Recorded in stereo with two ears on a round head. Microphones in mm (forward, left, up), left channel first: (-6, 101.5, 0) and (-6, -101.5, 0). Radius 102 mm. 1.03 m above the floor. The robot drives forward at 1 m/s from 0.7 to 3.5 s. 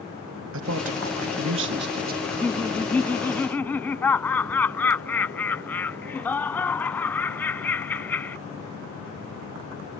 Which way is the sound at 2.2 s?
5° left (ahead or behind).